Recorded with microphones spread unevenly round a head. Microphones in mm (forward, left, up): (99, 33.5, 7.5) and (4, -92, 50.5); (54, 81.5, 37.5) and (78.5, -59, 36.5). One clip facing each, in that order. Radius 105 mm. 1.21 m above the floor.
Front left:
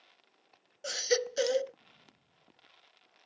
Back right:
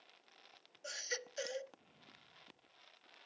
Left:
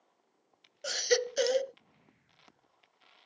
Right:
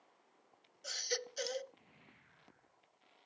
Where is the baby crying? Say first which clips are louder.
Front left 17 dB, left 14 dB; 90° left.